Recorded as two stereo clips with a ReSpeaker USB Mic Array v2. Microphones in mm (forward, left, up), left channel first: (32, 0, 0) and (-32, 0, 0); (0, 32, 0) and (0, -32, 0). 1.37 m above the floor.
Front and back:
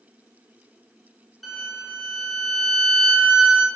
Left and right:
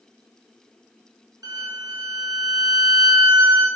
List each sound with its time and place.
1.4 s a violin: 90° right, 0.9 m